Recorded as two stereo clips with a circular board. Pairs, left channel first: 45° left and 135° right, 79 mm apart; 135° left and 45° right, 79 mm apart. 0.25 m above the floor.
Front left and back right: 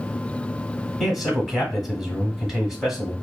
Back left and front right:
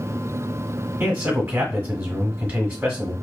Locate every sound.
1.0 s a man speaking: 55° right, 1.1 m